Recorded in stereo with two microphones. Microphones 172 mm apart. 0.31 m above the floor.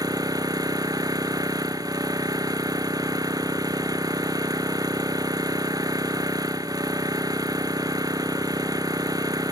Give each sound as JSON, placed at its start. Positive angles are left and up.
{"t": 0.0, "sound": "an engine running", "side_deg": -20}